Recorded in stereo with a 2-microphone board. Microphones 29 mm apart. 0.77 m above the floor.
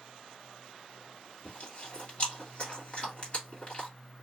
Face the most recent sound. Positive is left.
turn(degrees=40)  # may be behind; listen again after turning